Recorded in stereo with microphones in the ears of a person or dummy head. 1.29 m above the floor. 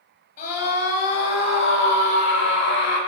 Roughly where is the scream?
Left.